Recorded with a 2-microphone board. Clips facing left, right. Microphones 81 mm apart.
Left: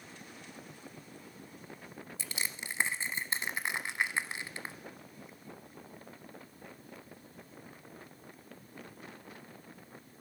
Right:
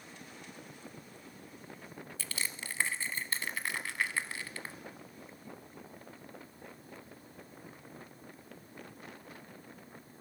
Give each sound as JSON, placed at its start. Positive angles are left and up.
{"t": 2.2, "sound": "crushing", "side_deg": 20, "distance_m": 0.7}